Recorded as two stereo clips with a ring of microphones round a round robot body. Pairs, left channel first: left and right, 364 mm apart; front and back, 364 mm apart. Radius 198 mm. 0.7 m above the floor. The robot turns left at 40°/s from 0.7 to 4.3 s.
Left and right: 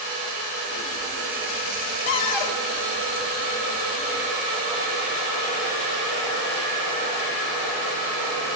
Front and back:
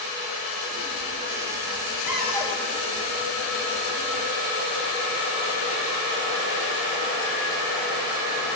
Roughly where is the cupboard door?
Left.